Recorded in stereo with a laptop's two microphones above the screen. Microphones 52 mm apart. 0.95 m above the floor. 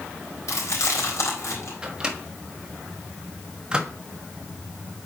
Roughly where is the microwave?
Centre.